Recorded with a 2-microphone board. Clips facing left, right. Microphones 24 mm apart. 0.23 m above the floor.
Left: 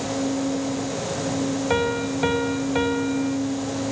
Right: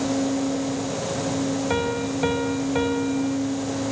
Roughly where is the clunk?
I don't hear a clunk.